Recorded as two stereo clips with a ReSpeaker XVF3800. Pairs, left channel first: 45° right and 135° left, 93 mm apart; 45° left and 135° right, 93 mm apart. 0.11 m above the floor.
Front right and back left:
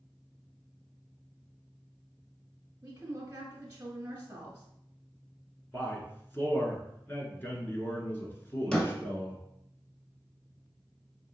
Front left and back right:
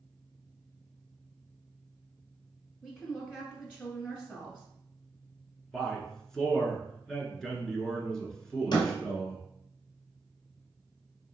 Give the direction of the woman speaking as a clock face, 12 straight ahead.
9 o'clock.